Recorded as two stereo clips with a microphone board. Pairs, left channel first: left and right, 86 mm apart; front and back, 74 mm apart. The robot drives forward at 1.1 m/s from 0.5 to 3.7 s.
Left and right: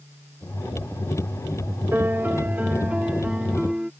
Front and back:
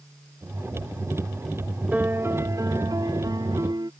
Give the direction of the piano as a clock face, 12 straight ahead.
4 o'clock.